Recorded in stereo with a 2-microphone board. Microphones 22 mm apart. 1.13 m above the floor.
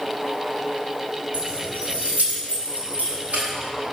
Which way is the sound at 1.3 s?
55° right (ahead or behind).